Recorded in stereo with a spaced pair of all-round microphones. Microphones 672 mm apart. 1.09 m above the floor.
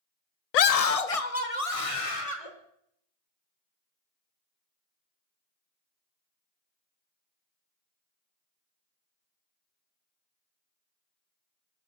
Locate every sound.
0.5 s a scream: 70° left (ahead or behind), 0.5 m; by 2.5 s 50° left (ahead or behind), 3.5 m